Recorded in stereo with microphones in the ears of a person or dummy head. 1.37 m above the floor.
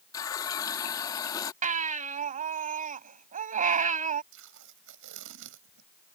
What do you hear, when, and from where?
0.1 s a running tap: 30° left (ahead or behind)
1.6 s a baby crying: 50° right (ahead or behind)
4.3 s tape being pulled: 80° right